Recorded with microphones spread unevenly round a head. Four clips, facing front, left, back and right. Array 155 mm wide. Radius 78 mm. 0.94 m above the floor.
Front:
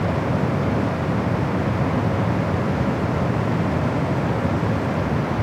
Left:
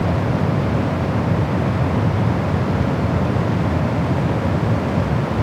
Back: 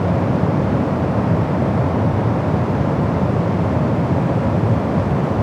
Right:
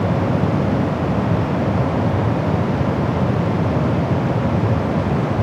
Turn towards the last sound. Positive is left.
No sound to turn to.